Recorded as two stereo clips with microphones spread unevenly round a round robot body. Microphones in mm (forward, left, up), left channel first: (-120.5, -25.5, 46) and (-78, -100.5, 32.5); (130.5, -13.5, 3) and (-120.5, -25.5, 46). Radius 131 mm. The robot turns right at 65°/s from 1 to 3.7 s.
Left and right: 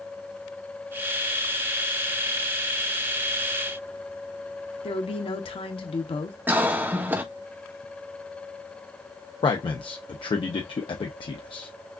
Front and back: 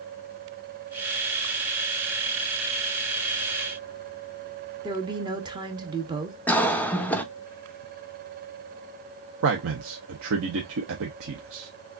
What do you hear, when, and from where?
4.8 s a woman speaking: 105° left, 0.9 m
6.5 s a cough: 55° right, 0.9 m
9.4 s a man speaking: 140° left, 0.8 m